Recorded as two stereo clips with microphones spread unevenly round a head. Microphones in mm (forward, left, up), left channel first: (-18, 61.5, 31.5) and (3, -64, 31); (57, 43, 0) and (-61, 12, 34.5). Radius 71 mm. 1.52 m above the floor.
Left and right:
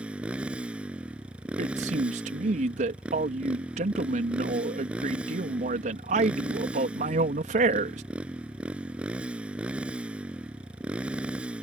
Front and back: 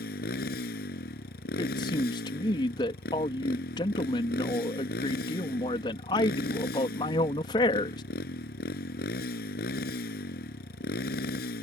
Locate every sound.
0.0 s a motorcycle: straight ahead
1.6 s a man speaking: 45° right